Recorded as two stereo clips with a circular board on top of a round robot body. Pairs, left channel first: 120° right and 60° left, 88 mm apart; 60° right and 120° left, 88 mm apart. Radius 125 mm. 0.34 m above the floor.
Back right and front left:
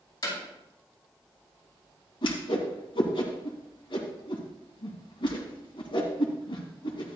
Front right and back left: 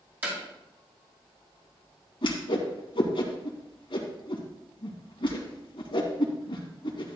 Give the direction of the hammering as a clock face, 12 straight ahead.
6 o'clock.